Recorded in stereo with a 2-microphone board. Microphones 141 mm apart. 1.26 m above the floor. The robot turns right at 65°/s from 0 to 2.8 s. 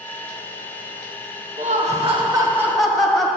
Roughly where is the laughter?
Right.